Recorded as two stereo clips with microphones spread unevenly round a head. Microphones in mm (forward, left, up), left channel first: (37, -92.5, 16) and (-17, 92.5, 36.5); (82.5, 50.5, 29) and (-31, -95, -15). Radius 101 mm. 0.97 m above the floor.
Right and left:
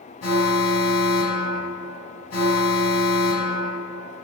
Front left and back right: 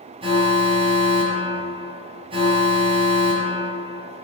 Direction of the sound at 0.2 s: 65° right.